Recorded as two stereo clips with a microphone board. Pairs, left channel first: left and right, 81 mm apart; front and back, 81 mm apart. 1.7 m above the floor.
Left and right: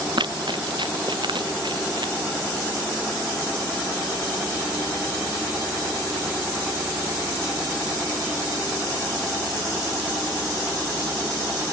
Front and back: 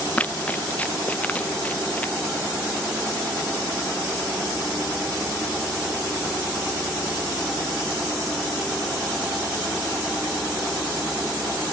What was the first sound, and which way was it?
Running footsteps, 70° right.